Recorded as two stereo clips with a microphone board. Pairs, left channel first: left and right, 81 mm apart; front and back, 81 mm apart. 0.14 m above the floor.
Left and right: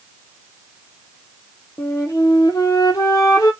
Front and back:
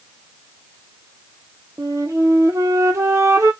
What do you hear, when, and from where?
1.8 s a flute: 130° left, 0.8 m